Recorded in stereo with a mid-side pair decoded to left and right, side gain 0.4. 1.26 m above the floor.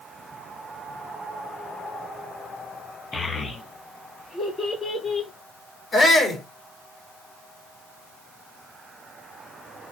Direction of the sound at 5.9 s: 40° left.